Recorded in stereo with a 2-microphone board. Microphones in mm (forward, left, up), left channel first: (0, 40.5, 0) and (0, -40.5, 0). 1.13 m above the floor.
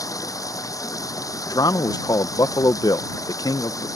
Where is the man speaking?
55° left (ahead or behind).